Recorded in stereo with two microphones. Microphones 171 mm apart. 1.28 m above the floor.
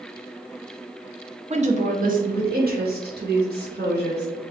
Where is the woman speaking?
40° right (ahead or behind), 0.7 m; by 4.3 s 75° right (ahead or behind), 2 m.